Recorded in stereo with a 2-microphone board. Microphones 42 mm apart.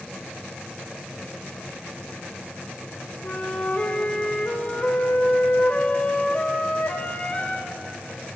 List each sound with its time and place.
3.2 s a flute: 35° left (ahead or behind), 2.5 m